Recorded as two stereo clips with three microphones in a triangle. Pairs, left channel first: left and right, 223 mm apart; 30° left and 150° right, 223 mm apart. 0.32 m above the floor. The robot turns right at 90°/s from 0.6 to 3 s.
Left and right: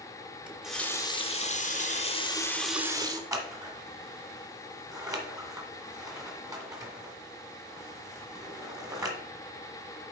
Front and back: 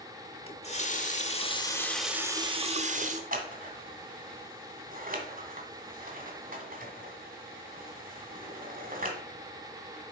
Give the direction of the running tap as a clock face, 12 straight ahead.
12 o'clock.